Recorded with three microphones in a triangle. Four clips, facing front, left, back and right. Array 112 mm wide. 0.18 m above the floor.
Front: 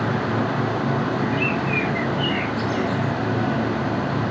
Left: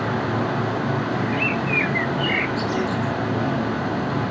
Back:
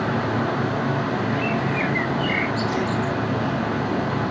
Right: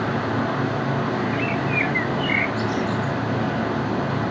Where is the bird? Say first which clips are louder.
Even, even; 100° left, 0.8 m.